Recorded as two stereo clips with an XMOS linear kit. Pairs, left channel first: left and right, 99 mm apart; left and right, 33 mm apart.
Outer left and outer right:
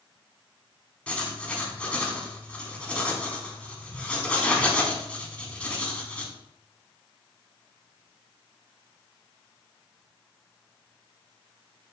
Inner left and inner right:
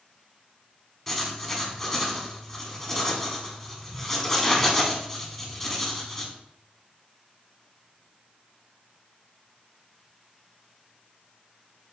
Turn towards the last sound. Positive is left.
turn(degrees=10)  # may be behind; listen again after turning